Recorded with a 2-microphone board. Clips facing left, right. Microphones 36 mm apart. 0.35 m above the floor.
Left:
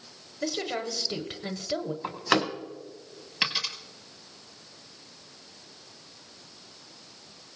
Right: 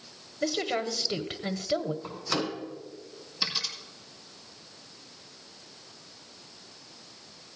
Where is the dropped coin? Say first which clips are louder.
Left 4 dB; 60° left (ahead or behind), 2 m.